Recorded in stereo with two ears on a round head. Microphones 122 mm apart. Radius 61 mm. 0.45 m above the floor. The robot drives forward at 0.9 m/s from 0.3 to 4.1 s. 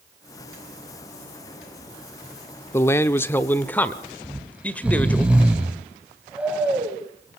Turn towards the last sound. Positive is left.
turn(degrees=-10)  # may be behind; listen again after turning